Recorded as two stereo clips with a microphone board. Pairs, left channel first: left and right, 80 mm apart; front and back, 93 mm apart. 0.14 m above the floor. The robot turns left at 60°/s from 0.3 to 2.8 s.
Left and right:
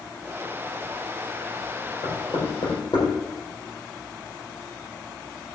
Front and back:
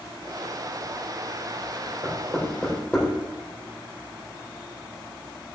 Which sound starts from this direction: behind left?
Knocking, at 2.0 s.